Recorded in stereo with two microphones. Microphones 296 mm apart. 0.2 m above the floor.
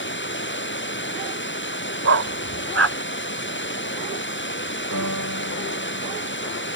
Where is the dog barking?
50° right (ahead or behind).